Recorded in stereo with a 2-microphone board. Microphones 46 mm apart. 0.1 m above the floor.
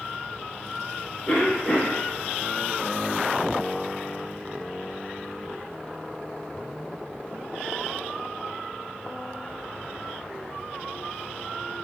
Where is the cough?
30° left (ahead or behind), 1.2 m.